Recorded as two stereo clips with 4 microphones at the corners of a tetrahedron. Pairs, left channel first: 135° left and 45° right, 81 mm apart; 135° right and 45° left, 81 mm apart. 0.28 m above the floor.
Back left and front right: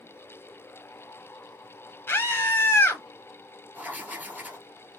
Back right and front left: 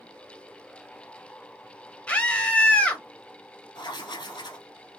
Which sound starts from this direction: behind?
A scream, at 2.1 s.